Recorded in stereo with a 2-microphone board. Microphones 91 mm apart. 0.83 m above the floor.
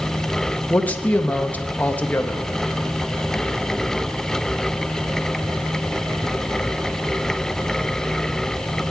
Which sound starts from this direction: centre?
A man speaking, at 0.7 s.